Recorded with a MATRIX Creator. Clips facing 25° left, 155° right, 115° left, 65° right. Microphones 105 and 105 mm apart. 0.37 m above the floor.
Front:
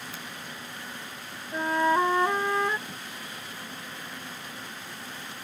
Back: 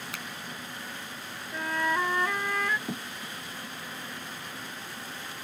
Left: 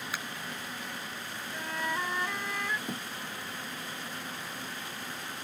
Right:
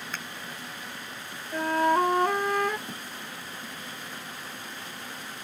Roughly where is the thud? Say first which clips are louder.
Back 6 dB, left 2 dB; behind.